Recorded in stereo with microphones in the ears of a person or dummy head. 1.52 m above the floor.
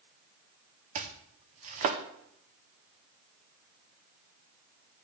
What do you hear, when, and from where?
0.9 s chopping: 40° right (ahead or behind), 0.6 m